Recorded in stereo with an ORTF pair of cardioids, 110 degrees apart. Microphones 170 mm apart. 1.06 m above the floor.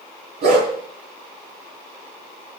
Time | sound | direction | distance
0.4 | a dog barking | 70° right | 5.5 m